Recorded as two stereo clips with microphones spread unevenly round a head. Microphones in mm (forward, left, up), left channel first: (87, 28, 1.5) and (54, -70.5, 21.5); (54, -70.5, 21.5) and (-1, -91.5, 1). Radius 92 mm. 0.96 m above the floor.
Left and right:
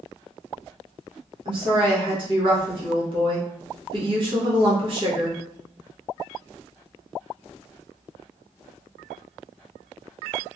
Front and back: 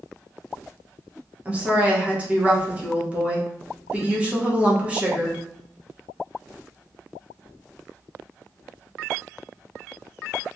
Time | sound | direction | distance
1.4 | a woman speaking | 135° right | 0.9 m